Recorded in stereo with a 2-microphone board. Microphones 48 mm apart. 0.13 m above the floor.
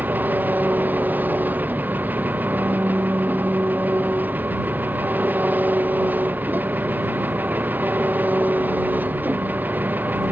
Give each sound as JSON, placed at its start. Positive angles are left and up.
{"t": 0.0, "sound": "an engine running", "side_deg": -40}